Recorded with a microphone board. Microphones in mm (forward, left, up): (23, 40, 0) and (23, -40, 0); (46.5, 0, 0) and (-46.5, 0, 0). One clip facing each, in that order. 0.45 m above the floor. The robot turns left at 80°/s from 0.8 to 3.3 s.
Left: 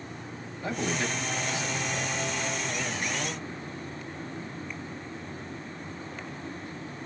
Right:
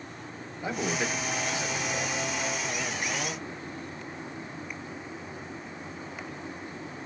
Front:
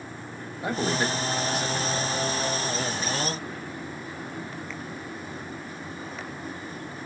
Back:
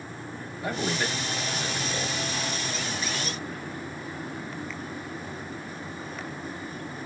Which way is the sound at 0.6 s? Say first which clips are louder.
Even, front 3 dB; 25° right.